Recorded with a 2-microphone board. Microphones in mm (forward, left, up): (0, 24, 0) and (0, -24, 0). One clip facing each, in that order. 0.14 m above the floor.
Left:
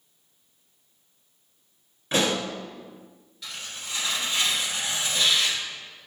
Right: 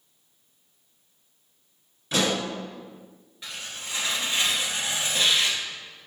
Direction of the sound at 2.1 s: 40° left (ahead or behind).